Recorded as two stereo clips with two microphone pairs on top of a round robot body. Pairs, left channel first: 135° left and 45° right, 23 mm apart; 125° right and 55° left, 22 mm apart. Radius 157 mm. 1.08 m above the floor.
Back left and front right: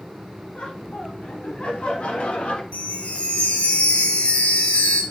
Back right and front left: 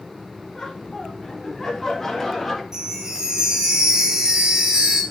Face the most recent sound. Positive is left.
turn(degrees=115)